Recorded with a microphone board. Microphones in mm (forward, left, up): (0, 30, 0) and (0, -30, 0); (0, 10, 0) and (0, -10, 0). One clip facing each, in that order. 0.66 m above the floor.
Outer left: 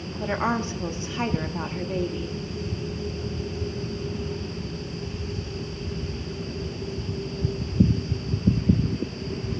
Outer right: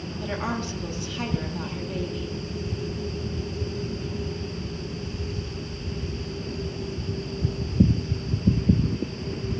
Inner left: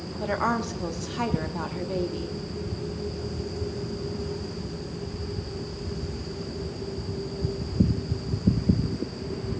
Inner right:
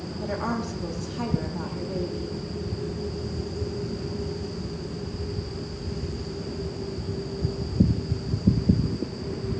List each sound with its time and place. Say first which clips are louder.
0.2 s a woman speaking: outer left 5 dB, inner left 3 dB; 30° left (ahead or behind), 0.7 m